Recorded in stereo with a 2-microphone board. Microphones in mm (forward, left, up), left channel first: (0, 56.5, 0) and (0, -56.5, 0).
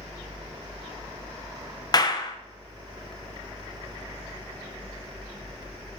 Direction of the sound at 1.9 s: 35° left (ahead or behind).